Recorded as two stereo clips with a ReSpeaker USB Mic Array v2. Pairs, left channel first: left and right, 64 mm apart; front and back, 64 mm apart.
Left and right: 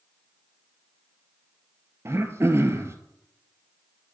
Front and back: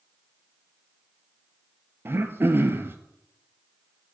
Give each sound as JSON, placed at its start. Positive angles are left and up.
{"t": 2.0, "sound": "throat clearing", "azimuth_deg": -130, "distance_m": 0.6}